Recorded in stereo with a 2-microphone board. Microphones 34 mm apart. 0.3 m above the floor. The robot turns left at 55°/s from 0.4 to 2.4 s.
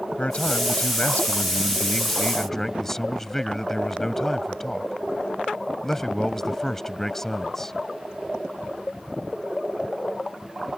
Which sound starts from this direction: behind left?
A man speaking, at 0.2 s.